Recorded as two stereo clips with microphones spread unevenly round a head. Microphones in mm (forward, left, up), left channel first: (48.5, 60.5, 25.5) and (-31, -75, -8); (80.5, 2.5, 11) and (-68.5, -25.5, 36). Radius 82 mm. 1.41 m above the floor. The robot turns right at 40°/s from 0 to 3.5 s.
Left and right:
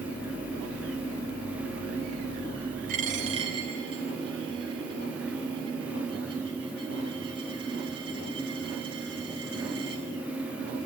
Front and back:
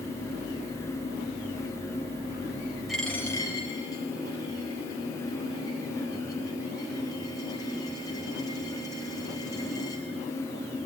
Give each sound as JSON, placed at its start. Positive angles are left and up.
{"t": 2.9, "sound": "a dropped coin", "azimuth_deg": -85, "distance_m": 4.0}